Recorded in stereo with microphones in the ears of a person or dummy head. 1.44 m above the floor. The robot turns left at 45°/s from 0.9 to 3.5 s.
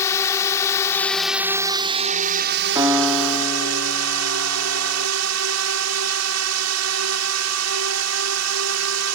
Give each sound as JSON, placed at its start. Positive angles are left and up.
{"t": 0.0, "sound": "a drone", "azimuth_deg": 15}
{"t": 2.8, "sound": "a piano", "azimuth_deg": -165}